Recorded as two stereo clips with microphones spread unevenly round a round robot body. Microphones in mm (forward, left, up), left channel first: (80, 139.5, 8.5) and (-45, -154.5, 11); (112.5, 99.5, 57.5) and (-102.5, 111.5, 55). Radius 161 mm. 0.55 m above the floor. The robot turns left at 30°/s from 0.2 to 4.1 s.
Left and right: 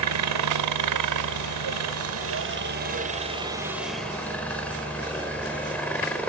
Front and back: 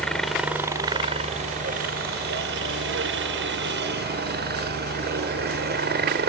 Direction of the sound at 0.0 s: 90° right.